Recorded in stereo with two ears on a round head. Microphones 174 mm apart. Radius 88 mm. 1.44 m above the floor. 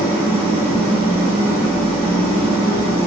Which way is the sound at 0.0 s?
35° right (ahead or behind).